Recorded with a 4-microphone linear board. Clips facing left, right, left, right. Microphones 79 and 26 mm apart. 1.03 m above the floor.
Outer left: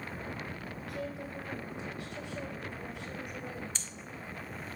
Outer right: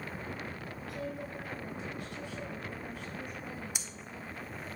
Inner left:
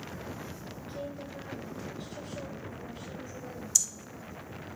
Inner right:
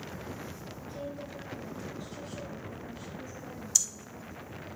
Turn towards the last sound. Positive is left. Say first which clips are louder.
# even, even
turn(degrees=-10)  # may be behind; listen again after turning